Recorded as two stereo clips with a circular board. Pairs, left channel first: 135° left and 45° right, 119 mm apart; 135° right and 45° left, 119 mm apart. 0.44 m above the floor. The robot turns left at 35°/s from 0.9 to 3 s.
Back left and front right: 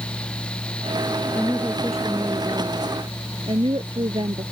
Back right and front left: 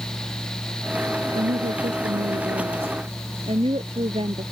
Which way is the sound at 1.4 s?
60° left.